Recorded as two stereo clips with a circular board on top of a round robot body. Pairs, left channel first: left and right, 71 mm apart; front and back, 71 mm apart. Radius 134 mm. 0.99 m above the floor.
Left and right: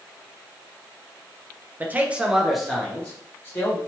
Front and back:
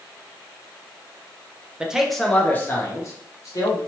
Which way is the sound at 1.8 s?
115° right.